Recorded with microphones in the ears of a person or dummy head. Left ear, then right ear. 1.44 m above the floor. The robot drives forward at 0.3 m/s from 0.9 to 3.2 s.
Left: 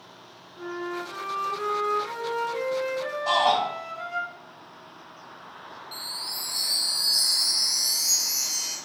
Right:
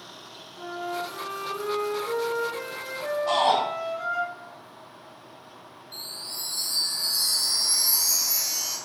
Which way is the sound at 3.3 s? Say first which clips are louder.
Even; 80° left.